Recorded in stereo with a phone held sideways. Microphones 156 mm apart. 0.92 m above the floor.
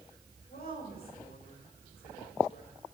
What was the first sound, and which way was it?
A woman speaking, 80° left.